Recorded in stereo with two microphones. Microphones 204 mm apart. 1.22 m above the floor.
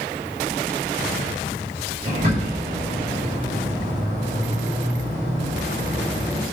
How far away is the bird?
About 7 m.